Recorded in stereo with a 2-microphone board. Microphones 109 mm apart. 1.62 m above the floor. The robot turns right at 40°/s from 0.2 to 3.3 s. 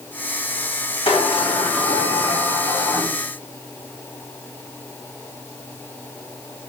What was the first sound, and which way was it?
A sliding door, 75° left.